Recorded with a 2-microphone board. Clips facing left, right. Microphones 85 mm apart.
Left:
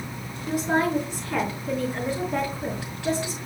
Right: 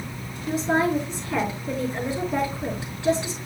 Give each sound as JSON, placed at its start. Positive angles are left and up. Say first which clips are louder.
{"t": 0.5, "sound": "a woman speaking", "louder": "right 1 dB", "side_deg": 10, "distance_m": 3.5}